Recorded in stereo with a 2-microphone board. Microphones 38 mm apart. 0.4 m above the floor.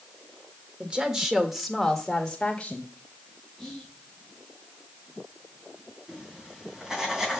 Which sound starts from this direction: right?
A woman speaking, at 0.8 s.